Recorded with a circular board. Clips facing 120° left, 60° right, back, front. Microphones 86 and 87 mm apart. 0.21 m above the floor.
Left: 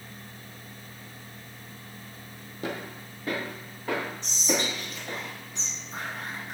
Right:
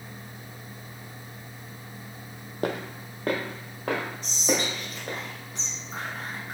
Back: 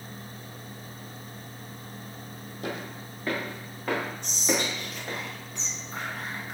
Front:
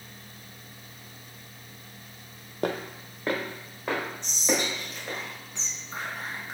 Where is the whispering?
60° right, 1.9 m.